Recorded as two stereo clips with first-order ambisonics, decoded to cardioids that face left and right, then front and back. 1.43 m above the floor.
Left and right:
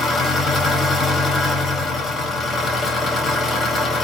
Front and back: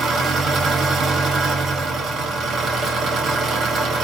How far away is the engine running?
About 0.7 m.